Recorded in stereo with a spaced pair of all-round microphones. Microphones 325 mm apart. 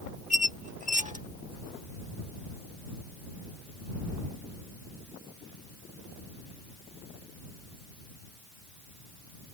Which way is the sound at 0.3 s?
25° right (ahead or behind).